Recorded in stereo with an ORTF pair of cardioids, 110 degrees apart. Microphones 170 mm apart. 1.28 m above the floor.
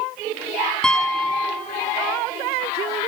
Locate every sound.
0.8 s a piano: 5° left, 1.6 m